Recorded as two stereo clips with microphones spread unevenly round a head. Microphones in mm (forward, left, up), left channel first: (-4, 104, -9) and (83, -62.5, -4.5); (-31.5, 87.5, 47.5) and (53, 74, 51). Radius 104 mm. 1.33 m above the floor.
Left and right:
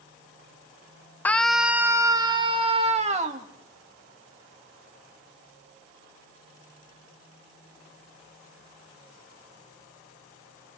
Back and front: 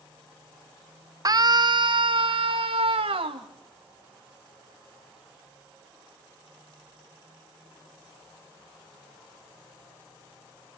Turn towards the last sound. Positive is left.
turn(degrees=-10)